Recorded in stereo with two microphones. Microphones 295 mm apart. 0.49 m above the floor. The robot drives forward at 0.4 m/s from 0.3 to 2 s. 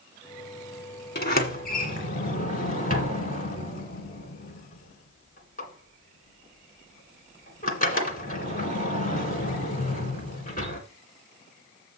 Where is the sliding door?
35° left (ahead or behind), 1.7 m; by 10.8 s 30° left (ahead or behind), 2 m.